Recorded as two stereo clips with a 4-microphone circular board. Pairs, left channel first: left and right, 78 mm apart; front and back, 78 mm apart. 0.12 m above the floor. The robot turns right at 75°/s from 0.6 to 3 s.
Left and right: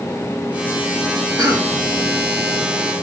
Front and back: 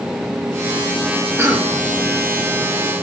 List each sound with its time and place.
1.4 s a cough: 125° right, 3.5 m; by 1.8 s 95° right, 3.5 m